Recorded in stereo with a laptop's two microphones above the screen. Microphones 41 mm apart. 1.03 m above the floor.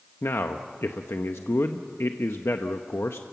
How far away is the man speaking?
About 0.9 m.